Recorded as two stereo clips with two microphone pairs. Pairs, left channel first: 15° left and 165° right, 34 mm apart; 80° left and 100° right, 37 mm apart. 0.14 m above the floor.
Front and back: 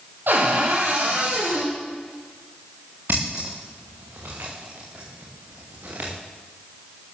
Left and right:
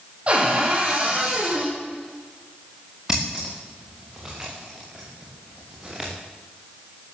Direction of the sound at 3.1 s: 175° right.